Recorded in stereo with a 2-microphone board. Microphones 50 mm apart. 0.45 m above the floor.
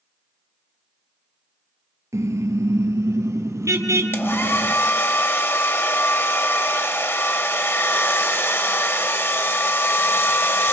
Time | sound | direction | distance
2.1 | a car horn | 85° right | 3.5 m
4.1 | a hair dryer | 50° left (ahead or behind) | 1.7 m